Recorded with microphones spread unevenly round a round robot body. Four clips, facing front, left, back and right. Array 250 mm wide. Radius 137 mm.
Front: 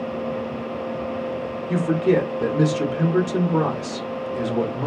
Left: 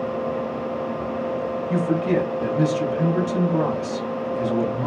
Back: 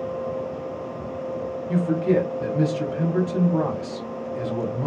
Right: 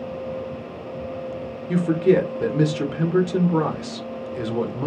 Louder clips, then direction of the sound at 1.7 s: Right 4 dB, front 2 dB; 55° right.